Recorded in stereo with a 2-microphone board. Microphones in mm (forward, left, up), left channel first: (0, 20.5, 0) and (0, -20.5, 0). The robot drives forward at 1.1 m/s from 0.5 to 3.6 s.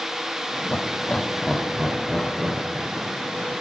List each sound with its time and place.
0.7 s laughter: 35° left (ahead or behind), 0.6 m; by 3.5 s 10° left (ahead or behind), 3 m